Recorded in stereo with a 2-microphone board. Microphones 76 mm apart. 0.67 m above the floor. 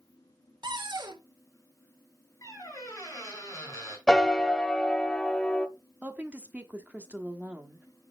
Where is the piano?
10° left (ahead or behind), 0.7 m.